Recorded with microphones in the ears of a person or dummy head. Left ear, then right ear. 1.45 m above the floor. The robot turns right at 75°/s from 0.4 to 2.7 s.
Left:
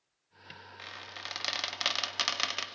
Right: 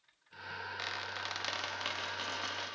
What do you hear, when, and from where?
0.8 s a squeak: 30° right, 1.2 m; by 2.6 s 110° left, 1.2 m